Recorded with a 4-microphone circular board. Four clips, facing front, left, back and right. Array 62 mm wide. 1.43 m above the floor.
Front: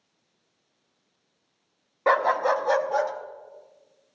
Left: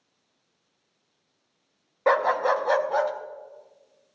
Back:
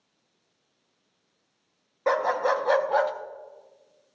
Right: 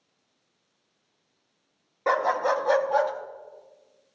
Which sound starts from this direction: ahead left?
A dog barking, at 2.1 s.